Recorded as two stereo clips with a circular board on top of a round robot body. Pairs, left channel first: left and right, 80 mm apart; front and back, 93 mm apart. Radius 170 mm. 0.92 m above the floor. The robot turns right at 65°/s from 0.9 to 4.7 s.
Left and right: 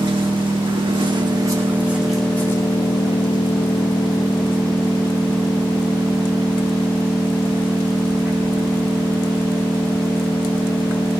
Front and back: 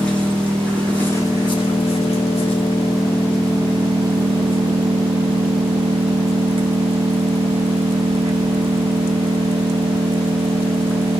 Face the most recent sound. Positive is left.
turn(degrees=170)